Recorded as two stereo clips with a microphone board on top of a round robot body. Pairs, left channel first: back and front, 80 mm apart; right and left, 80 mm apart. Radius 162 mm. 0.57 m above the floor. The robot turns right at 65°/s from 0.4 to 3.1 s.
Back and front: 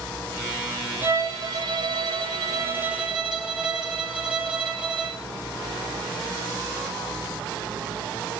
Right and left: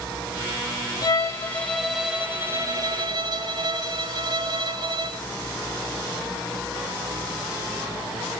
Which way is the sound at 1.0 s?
55° right.